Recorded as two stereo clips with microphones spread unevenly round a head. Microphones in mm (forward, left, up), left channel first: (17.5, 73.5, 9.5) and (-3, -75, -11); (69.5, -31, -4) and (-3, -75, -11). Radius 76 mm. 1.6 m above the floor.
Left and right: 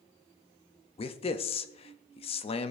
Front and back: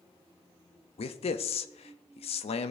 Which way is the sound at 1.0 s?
25° left.